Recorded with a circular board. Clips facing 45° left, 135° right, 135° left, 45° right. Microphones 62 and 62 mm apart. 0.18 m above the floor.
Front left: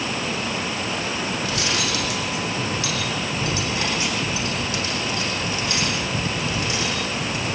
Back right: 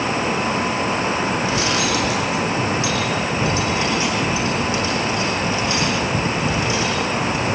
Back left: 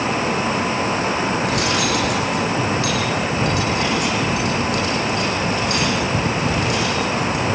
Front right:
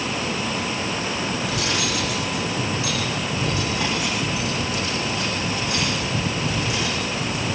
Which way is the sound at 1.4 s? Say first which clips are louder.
Back right 5 dB, back left 5 dB; 160° left.